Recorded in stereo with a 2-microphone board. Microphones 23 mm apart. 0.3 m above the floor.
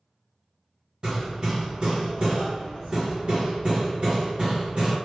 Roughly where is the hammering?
Right.